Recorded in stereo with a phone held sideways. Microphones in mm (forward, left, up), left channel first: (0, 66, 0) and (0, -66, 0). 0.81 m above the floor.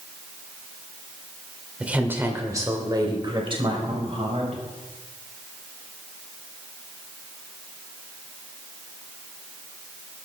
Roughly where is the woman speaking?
Centre.